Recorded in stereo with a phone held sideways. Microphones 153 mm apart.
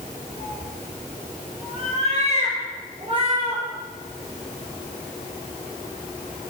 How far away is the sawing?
No sawing in this recording.